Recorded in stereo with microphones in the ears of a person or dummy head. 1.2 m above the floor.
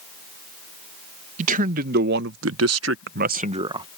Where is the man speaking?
40° right (ahead or behind); by 3.9 s 25° right (ahead or behind).